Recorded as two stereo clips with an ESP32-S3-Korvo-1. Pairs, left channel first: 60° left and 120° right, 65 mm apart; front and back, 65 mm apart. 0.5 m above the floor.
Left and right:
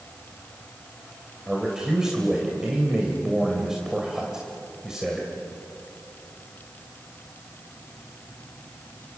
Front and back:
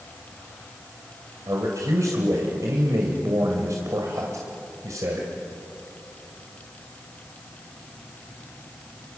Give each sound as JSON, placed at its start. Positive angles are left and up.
{"t": 1.5, "sound": "a man speaking", "azimuth_deg": 160, "distance_m": 2.5}